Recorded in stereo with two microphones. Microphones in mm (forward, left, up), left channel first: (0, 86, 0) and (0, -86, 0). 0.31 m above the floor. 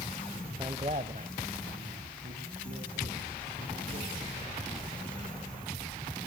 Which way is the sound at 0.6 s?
25° right (ahead or behind).